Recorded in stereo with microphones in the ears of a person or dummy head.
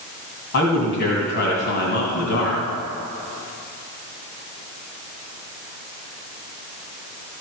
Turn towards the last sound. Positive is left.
turn(degrees=60)  # may be behind; listen again after turning